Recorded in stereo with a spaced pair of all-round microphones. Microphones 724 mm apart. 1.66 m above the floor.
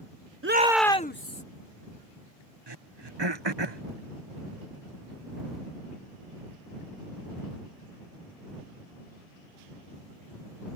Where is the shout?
20° right (ahead or behind); by 1.4 s 25° left (ahead or behind).